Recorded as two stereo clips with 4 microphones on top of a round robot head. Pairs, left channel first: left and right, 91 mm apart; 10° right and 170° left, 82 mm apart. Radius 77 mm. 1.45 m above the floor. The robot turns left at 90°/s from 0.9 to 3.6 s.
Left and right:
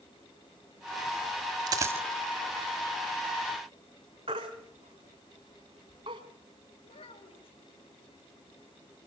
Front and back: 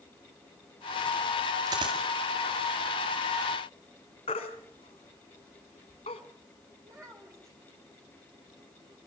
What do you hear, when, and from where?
1.7 s a dropped coin: 125° right, 1.8 m; by 2.0 s 160° right, 1.8 m
4.3 s a baby crying: 45° right, 2.5 m
6.8 s a child speaking: 115° left, 5.5 m